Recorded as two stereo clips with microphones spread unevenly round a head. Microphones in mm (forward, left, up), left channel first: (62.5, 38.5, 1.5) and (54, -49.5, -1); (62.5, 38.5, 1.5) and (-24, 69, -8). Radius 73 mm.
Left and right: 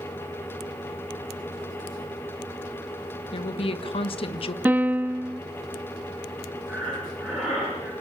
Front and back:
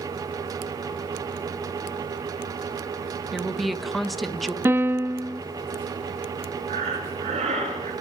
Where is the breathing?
Straight behind, 6 m.